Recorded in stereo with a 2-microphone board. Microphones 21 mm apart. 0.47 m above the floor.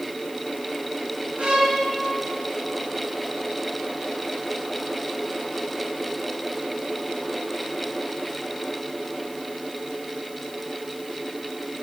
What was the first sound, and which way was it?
A violin, 55° right (ahead or behind).